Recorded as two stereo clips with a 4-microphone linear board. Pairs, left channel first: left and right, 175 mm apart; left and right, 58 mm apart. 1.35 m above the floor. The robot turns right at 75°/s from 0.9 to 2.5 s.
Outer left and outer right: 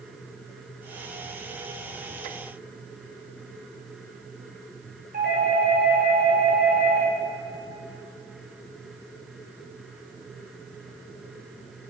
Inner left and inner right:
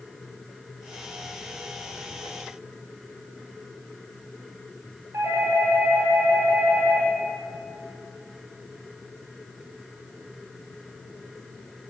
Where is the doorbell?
60° right (ahead or behind), 7.5 m.